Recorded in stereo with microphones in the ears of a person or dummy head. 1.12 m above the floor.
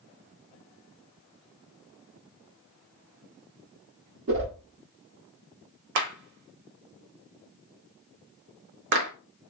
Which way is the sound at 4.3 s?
65° right (ahead or behind).